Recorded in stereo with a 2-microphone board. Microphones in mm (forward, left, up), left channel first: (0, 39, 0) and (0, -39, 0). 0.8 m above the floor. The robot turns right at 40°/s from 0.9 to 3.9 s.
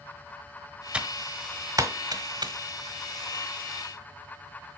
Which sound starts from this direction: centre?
Typing on a keyboard, at 0.9 s.